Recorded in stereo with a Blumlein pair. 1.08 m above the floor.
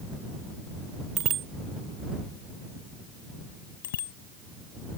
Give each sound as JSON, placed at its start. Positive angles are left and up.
{"t": 1.2, "sound": "a bicycle bell", "azimuth_deg": -30}
{"t": 3.8, "sound": "a bicycle bell", "azimuth_deg": 60}